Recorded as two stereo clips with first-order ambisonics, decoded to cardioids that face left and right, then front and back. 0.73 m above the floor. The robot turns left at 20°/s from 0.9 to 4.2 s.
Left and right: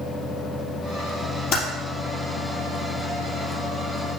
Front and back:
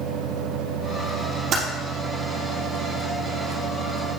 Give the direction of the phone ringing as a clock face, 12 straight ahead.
I don't hear a phone ringing.